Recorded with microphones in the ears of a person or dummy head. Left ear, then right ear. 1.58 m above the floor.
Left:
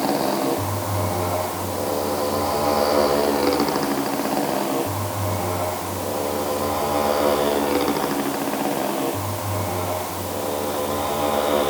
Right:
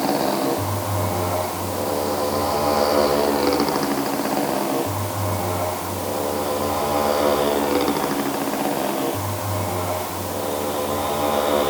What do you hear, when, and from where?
0.0 s a motorcycle: 5° left (ahead or behind)